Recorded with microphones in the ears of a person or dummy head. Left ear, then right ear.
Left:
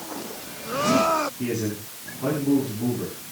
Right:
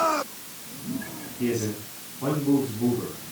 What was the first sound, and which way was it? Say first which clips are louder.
A man speaking: even; 10° right (ahead or behind).